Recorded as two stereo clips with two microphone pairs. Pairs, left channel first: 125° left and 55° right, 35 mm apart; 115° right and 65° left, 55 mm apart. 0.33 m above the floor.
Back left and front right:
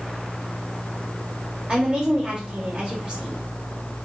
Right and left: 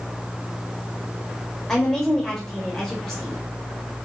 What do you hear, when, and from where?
1.7 s a woman speaking: 40° right, 0.9 m